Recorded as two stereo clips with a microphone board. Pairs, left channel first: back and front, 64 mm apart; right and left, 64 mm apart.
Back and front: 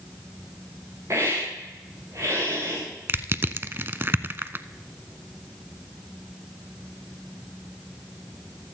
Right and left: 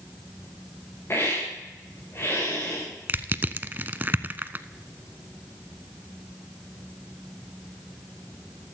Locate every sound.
1.1 s a hiss: 40° right, 5 m
3.1 s crushing: 40° left, 0.5 m